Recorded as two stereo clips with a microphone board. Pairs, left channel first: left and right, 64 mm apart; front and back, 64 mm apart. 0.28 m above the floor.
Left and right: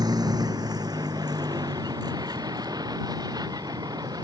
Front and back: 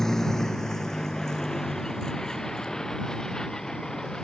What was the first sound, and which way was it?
A vehicle, 85° right.